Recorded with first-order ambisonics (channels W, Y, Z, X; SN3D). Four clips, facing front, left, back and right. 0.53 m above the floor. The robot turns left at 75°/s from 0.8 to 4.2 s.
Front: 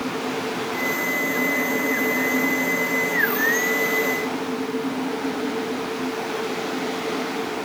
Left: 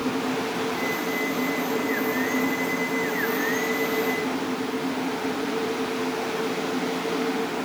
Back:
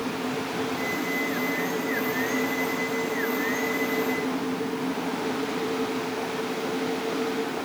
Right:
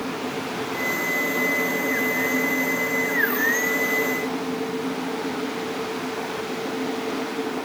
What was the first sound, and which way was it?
Only background noise.